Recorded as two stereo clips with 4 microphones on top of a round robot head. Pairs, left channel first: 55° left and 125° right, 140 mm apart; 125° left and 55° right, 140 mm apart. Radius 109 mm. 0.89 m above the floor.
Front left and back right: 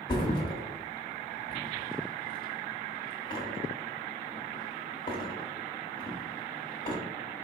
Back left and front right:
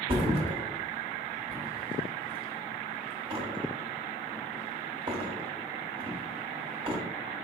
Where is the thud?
Straight ahead, 0.7 m.